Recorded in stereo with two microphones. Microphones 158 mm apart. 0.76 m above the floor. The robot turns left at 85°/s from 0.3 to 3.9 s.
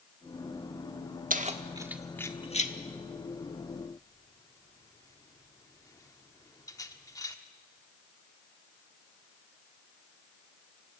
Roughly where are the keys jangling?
Right.